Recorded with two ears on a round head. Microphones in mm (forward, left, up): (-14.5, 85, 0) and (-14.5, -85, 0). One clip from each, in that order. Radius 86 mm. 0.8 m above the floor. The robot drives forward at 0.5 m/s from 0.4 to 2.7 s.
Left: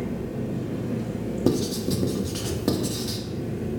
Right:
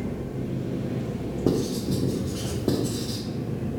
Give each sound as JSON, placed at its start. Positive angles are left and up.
{"t": 0.0, "sound": "an engine running", "side_deg": 40, "distance_m": 2.5}
{"t": 1.5, "sound": "writing", "side_deg": 70, "distance_m": 1.1}